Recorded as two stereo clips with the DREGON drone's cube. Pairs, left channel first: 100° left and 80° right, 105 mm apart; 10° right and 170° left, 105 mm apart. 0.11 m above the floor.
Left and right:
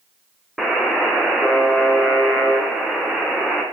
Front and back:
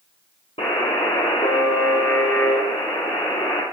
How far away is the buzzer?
About 2 m.